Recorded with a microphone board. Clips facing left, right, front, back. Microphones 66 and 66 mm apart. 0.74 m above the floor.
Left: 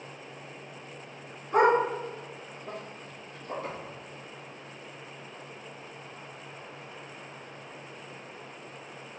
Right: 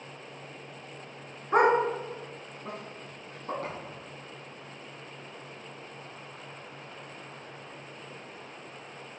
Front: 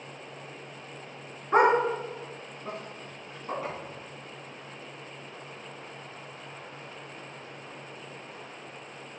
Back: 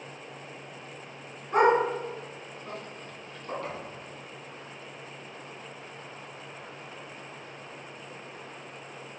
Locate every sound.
1.5 s a dog barking: 50° right, 3 m; by 3.5 s 75° right, 2.5 m
3.6 s a thud: 80° right, 3.5 m